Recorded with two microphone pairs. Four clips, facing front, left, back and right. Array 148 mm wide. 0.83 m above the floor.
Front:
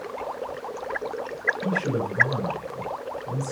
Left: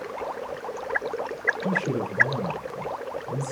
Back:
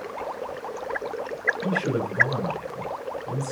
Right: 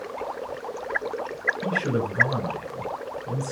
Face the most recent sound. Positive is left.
turn(degrees=-110)